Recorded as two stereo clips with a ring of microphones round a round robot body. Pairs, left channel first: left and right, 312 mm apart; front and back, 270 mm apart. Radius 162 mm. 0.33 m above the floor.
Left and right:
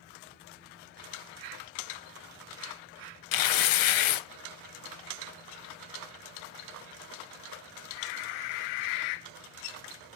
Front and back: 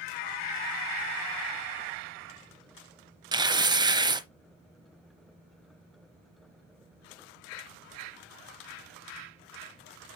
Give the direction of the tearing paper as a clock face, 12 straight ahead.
9 o'clock.